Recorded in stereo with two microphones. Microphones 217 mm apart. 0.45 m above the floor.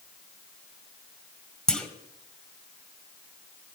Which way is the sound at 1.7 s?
5° left (ahead or behind).